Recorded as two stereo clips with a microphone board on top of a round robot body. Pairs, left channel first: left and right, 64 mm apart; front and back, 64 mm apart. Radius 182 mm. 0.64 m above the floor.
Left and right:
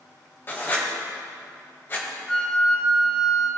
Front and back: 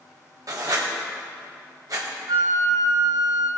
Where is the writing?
150° left, 1.6 m.